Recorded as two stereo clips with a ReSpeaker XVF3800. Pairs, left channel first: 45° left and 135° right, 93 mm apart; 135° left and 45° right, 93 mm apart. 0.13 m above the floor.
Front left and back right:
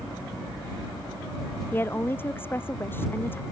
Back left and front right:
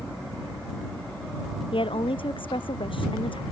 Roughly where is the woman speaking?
Behind left.